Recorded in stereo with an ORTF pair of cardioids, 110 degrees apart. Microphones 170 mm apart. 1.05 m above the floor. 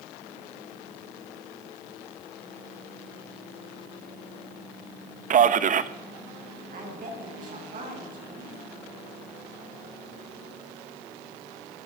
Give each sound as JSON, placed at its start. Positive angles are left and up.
{"t": 5.3, "sound": "a man speaking", "azimuth_deg": -50, "distance_m": 1.0}
{"t": 6.7, "sound": "a woman speaking", "azimuth_deg": -50, "distance_m": 8.0}